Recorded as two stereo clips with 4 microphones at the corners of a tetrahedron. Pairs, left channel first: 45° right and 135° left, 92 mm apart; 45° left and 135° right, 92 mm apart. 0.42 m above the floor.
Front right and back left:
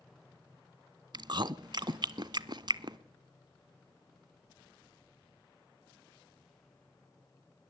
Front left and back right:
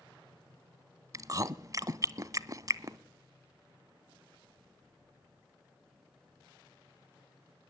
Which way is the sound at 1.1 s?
175° left.